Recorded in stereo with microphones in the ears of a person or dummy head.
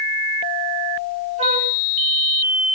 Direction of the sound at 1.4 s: 40° right (ahead or behind).